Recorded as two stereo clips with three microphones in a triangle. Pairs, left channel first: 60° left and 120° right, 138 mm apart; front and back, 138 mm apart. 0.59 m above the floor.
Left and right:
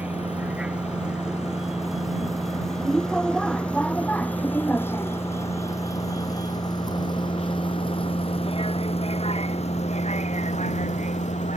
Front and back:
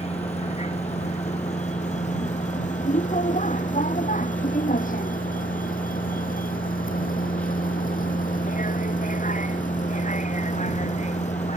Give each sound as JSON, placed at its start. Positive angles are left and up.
{"t": 0.0, "sound": "a vehicle", "azimuth_deg": -40}